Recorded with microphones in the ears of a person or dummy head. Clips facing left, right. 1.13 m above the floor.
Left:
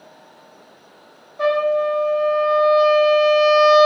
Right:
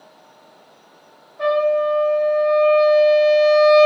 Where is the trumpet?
55° left (ahead or behind), 0.9 m.